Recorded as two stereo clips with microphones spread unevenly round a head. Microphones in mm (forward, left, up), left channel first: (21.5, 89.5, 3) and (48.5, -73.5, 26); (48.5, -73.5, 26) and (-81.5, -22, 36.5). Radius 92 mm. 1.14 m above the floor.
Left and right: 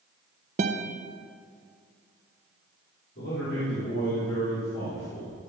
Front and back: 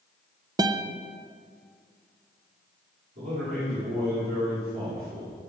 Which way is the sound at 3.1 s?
130° left.